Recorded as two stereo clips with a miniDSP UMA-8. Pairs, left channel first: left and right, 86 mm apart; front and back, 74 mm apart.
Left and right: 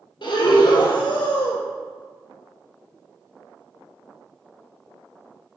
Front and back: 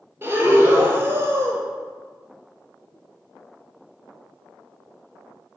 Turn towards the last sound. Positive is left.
turn(degrees=120)